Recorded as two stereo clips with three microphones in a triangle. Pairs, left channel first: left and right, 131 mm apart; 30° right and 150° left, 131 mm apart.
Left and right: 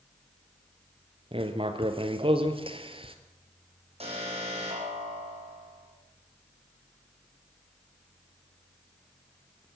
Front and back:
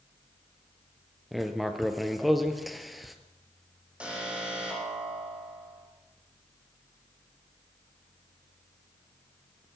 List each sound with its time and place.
1.3 s writing: 120° right, 1.7 m
4.0 s an alarm: 130° right, 7 m